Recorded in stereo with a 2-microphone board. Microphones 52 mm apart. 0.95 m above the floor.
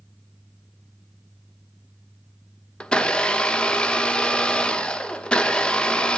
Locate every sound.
2.8 s a blender: 20° left (ahead or behind), 1.2 m